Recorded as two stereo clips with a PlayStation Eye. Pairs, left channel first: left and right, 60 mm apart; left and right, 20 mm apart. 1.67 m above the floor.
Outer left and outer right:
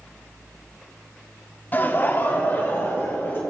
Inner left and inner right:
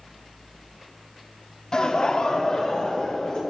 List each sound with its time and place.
1.7 s laughter: 30° left (ahead or behind), 0.8 m; by 3.4 s 35° left (ahead or behind), 3 m